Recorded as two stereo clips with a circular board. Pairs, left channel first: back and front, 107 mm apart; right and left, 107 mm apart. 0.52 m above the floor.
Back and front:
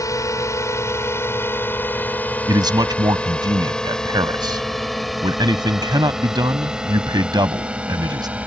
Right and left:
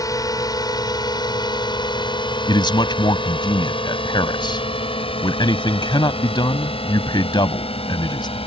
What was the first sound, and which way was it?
A drone, 130° right.